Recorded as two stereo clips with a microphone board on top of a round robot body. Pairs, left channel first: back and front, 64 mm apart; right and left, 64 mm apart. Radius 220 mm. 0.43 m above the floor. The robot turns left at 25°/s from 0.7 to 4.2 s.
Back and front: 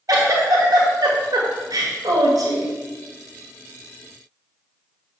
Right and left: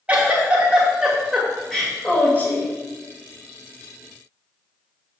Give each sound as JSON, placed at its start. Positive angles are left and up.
{"t": 0.1, "sound": "a giggle", "azimuth_deg": 20, "distance_m": 2.0}